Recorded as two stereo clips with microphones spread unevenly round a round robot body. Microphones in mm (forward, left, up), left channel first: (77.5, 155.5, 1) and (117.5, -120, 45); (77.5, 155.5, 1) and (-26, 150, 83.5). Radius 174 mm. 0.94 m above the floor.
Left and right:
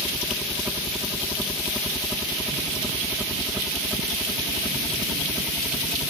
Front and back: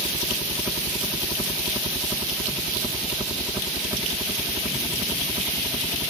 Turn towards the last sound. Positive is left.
turn(degrees=20)